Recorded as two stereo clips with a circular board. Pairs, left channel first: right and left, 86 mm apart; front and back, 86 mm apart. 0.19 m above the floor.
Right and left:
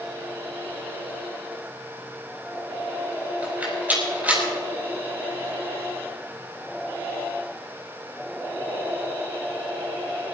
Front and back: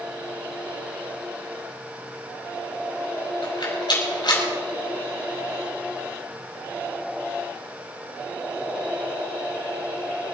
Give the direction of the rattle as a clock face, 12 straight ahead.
11 o'clock.